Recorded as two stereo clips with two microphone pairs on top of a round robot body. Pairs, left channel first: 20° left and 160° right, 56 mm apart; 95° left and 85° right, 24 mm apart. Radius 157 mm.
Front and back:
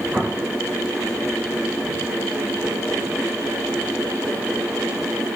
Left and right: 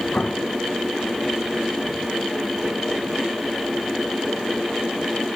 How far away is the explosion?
About 1.6 m.